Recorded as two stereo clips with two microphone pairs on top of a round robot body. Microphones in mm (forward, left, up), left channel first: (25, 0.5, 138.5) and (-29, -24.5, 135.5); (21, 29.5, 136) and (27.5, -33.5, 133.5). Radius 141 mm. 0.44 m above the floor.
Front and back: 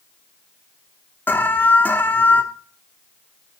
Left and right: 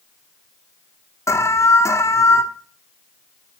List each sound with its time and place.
1.3 s an alarm: 75° left, 1.3 m